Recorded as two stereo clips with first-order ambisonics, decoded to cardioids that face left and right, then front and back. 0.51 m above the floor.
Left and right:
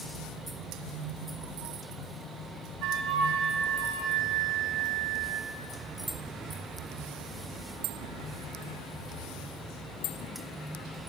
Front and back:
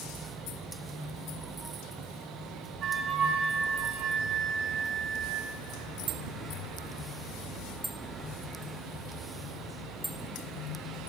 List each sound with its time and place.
2.8 s a flute: 125° right, 3 m